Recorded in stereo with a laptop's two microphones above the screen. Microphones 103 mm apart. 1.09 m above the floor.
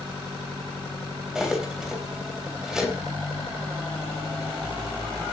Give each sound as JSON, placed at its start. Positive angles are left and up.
{"t": 1.4, "sound": "cutlery clinking", "side_deg": -5, "distance_m": 3.0}